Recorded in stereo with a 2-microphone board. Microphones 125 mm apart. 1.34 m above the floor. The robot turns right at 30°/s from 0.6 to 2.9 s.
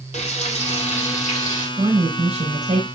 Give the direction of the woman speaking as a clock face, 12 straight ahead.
4 o'clock.